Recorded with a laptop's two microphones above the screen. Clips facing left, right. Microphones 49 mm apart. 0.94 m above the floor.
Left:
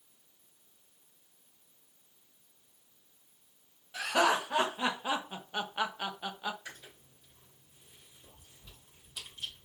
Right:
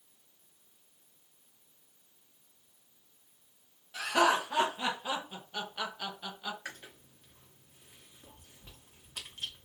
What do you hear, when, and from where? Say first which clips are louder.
3.9 s laughter: right 1 dB; 5° left (ahead or behind), 0.8 m; by 6.5 s 20° left (ahead or behind), 0.9 m
6.7 s chewing: right 3 dB; 55° right (ahead or behind), 0.9 m